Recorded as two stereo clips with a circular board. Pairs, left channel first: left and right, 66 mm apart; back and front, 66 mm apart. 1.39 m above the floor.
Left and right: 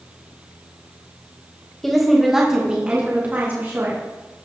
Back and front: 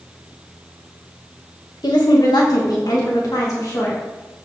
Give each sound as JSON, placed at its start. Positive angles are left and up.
{"t": 1.8, "sound": "a woman speaking", "azimuth_deg": 175, "distance_m": 1.6}